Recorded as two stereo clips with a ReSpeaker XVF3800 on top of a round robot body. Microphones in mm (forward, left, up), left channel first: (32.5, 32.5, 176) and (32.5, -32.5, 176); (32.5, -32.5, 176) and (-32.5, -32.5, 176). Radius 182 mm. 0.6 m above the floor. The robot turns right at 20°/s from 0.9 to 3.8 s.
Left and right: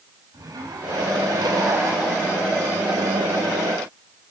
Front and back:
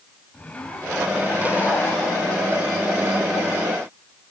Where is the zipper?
70° right, 6 m; by 3.0 s 30° right, 6 m.